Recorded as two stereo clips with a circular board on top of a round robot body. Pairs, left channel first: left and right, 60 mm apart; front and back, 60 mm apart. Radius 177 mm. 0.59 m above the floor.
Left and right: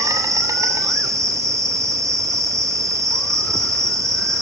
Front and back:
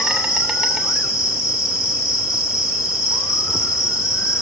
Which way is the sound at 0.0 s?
95° right.